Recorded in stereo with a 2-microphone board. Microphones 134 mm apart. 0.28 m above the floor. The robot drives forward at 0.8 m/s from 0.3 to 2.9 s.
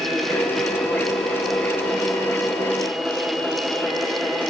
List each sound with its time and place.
Only background noise.